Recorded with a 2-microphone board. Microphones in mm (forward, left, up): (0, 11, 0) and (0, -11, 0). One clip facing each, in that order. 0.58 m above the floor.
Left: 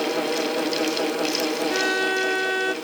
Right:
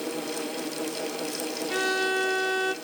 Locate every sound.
1.7 s a violin: 5° left (ahead or behind), 0.8 m